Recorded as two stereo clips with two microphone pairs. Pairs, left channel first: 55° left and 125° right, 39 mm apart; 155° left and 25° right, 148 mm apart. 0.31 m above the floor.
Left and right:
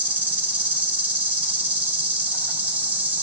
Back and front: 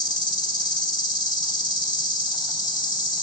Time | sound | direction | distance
0.0 | an insect | 150° right | 1.2 m